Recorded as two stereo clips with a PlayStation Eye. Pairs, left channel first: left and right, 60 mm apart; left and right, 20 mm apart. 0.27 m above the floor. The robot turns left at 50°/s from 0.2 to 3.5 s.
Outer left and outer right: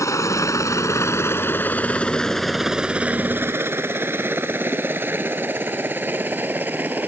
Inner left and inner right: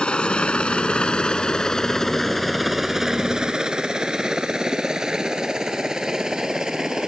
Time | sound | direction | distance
0.0 | a helicopter | 60° left (ahead or behind) | ?